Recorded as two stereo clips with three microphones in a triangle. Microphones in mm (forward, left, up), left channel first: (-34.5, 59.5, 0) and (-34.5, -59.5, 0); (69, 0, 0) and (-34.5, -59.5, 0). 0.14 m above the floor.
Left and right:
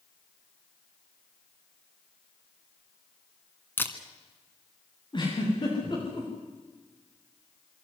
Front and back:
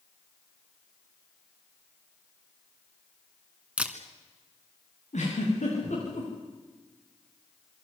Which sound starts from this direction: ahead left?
A giggle, at 5.1 s.